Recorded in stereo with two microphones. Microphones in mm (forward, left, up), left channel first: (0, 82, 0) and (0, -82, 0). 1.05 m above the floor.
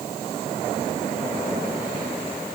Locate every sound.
Only background noise.